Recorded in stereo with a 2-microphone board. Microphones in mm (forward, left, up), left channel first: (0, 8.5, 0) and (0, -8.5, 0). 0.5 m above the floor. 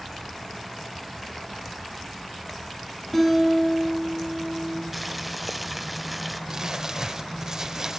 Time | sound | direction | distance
3.1 | a guitar | 15° left (ahead or behind) | 9.5 m
4.9 | boiling | 5° right (ahead or behind) | 1.0 m
6.5 | crumpling | 40° right (ahead or behind) | 1.7 m